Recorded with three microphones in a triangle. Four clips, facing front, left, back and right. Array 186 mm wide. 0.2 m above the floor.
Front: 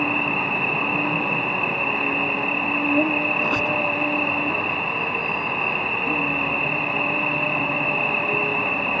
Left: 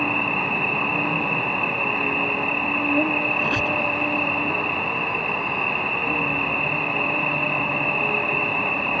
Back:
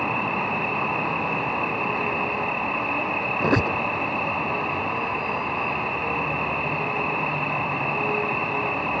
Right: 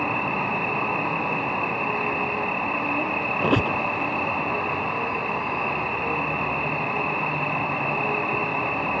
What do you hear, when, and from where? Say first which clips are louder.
0.0 s an insect: left 1 dB, front 1 dB; 35° left
3.4 s a squeak: right 2 dB, back 2 dB; 135° right